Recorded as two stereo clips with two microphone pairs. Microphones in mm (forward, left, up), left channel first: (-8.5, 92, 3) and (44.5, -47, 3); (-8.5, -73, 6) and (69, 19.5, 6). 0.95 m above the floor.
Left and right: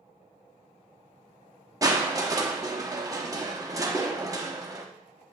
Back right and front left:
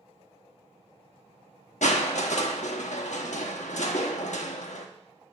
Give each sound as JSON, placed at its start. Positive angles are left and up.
{"t": 1.8, "sound": "crushing", "azimuth_deg": -135, "distance_m": 1.0}